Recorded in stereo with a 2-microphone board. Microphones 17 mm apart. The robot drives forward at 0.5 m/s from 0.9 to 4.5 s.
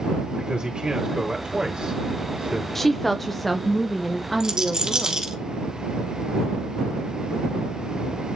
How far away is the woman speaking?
About 0.6 m.